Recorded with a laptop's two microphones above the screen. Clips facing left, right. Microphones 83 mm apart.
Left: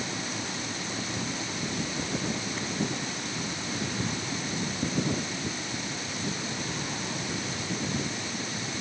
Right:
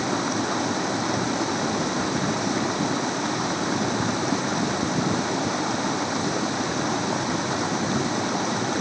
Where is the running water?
70° right (ahead or behind).